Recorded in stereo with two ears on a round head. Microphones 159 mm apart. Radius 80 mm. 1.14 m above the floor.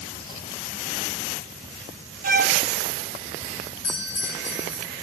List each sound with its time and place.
2.2 s a violin: 45° right (ahead or behind), 0.9 m
3.8 s a doorbell: 70° left (ahead or behind), 9.5 m